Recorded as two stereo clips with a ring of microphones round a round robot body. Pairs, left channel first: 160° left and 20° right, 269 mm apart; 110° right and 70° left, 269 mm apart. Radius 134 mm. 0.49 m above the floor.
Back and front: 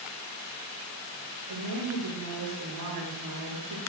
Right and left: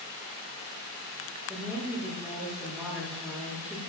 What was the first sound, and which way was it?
A woman speaking, 20° right.